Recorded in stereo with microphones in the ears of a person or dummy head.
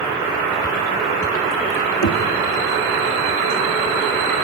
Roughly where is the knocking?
Left.